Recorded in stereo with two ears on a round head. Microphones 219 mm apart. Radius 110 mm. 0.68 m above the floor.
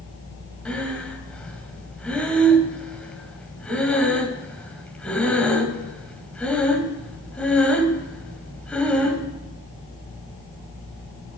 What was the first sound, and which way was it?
Breathing, 5° left (ahead or behind).